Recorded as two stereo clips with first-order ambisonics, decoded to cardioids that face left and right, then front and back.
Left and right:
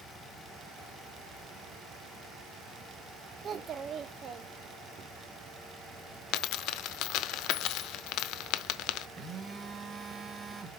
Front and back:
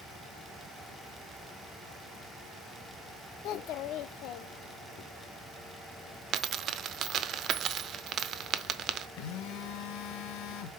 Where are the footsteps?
No footsteps in this recording.